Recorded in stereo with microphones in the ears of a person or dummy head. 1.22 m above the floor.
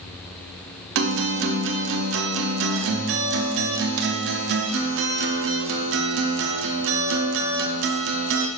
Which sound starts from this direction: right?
A guitar, at 0.9 s.